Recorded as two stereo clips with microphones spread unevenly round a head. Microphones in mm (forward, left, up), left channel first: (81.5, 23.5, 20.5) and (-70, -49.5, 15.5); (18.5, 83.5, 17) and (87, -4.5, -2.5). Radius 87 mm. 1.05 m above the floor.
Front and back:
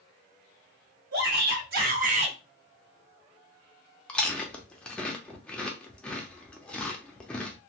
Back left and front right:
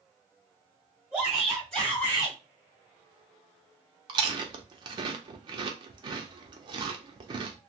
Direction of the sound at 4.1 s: 50° right.